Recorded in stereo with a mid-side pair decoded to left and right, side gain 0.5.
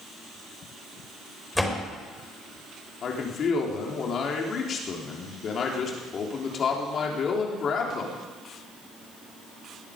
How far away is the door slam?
About 5 m.